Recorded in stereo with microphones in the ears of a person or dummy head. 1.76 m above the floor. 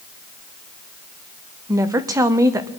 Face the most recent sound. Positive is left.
turn(degrees=-25)  # may be behind; listen again after turning